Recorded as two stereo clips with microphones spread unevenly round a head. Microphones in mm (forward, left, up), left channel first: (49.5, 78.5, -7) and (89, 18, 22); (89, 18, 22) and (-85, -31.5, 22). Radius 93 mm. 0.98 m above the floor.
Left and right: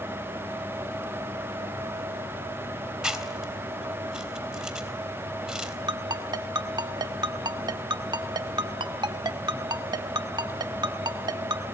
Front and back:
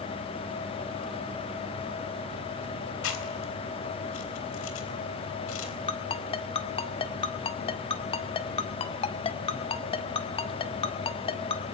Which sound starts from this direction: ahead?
Chewing, at 3.0 s.